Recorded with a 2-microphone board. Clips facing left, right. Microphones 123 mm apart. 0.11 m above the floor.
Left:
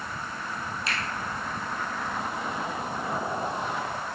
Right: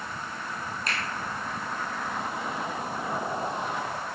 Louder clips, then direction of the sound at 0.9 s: Even; 45° right (ahead or behind).